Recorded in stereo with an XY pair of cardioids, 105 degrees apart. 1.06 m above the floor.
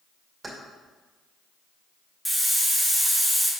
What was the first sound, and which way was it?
Keys jangling, 15° right.